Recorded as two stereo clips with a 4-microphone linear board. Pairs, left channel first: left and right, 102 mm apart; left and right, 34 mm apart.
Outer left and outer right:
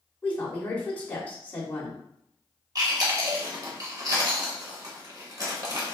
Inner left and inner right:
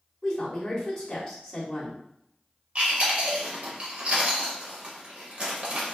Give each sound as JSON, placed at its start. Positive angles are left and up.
{"t": 0.2, "sound": "a woman speaking", "side_deg": 15, "distance_m": 0.9}
{"t": 2.8, "sound": "chewing", "side_deg": -40, "distance_m": 0.8}